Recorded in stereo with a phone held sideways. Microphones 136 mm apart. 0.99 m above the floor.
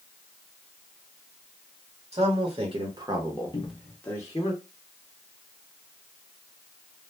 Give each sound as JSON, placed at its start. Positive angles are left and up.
{"t": 2.1, "sound": "a man speaking", "side_deg": -50, "distance_m": 1.3}
{"t": 3.5, "sound": "a cupboard door", "side_deg": 35, "distance_m": 0.7}